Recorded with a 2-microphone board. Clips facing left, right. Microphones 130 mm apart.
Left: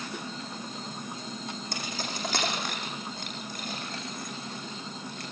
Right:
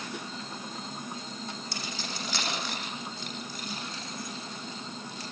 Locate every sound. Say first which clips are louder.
1.7 s keys jangling: left 2 dB; 50° left (ahead or behind), 10 m; by 5.2 s 55° left (ahead or behind), 14 m